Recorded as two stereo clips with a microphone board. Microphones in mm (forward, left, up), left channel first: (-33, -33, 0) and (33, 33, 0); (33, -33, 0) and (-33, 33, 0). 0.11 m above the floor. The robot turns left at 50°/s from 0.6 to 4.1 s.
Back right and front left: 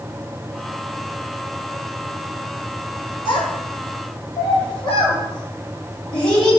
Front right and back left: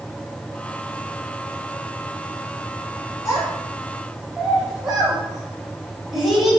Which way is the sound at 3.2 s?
95° right.